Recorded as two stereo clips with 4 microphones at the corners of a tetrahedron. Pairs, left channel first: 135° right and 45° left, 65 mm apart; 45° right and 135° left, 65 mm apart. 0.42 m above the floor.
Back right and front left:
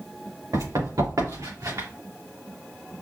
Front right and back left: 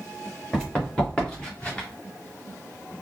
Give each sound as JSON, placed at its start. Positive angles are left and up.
{"t": 0.5, "sound": "running footsteps", "azimuth_deg": 35, "distance_m": 2.5}